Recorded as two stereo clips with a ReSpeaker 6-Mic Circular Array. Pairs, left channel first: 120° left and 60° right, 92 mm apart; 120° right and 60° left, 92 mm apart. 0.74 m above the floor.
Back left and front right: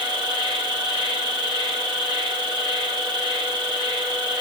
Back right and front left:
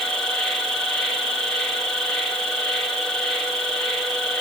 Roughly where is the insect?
Ahead right.